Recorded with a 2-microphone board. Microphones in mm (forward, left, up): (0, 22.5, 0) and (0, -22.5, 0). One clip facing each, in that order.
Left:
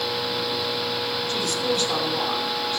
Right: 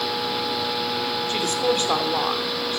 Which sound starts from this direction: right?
A woman speaking, at 1.3 s.